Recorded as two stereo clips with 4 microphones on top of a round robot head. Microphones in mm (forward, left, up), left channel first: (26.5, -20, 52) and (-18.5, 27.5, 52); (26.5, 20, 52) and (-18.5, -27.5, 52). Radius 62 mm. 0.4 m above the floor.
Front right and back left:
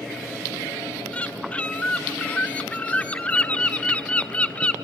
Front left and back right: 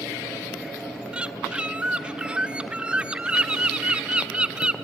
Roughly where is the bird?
Right.